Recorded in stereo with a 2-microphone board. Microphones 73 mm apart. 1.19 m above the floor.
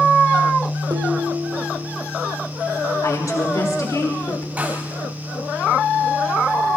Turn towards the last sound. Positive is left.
turn(degrees=-20)  # may be behind; listen again after turning